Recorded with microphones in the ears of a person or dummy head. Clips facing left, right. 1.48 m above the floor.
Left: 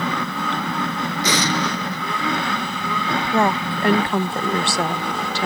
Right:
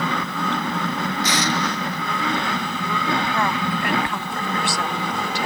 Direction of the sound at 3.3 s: 30° left (ahead or behind).